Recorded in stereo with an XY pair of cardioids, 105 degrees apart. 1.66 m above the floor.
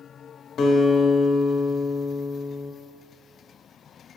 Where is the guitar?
55° left, 1.3 m.